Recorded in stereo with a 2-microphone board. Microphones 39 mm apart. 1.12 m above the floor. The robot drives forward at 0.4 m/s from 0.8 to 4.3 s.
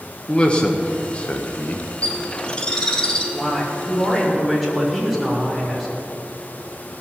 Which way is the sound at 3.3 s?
5° left (ahead or behind).